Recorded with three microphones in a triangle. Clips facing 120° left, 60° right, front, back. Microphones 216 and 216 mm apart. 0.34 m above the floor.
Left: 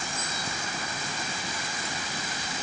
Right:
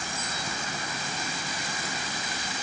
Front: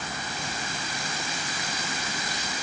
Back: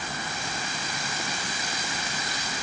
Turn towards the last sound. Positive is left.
No sound to turn to.